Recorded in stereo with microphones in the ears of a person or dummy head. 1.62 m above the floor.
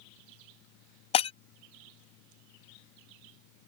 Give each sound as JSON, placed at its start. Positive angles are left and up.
{"t": 1.1, "sound": "breaking glass", "side_deg": 30}